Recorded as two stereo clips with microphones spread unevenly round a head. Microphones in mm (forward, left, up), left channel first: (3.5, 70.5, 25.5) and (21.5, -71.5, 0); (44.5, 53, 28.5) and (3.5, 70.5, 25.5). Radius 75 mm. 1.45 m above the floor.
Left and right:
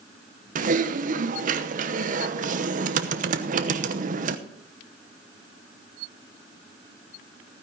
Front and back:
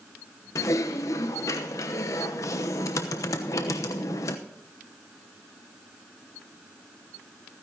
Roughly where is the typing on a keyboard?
Ahead right.